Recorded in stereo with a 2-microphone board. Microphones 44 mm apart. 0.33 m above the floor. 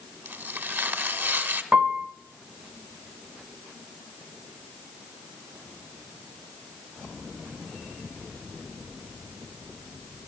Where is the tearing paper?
55° right (ahead or behind), 1.6 m.